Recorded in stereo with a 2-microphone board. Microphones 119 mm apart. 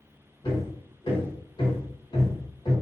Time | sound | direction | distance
0.4 | hammering | 45° left (ahead or behind) | 1.4 m